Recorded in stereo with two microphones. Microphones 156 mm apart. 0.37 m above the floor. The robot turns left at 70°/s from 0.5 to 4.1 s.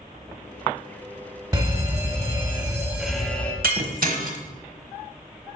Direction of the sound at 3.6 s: 70° right (ahead or behind).